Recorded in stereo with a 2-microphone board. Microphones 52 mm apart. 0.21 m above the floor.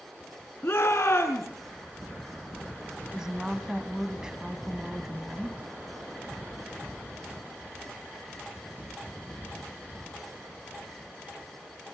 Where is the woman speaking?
15° right (ahead or behind), 1.7 m.